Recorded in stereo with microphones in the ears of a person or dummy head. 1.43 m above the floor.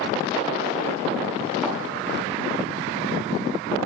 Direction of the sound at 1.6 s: 10° right (ahead or behind).